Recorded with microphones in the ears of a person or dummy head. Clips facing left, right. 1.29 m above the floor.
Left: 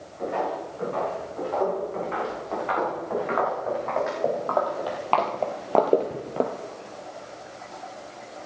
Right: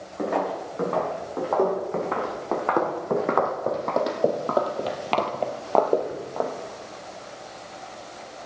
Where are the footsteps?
70° right (ahead or behind), 5.5 m; by 6.5 s 35° left (ahead or behind), 1.5 m.